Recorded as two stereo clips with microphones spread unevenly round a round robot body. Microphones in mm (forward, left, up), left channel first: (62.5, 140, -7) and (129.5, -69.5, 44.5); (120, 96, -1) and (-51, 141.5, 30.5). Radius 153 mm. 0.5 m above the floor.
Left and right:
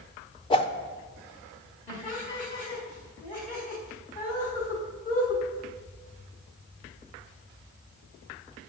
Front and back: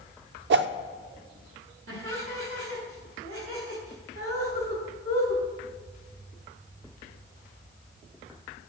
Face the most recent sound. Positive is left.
turn(degrees=-175)